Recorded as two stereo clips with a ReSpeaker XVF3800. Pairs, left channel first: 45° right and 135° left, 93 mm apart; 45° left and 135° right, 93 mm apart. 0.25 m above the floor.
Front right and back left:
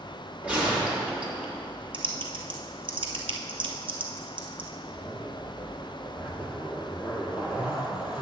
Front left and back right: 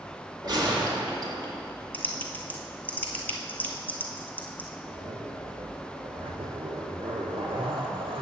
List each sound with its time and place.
0.4 s a gunshot: 155° right, 2.0 m
1.9 s typing on a keyboard: 115° left, 1.0 m
4.8 s a zipper: 145° right, 1.3 m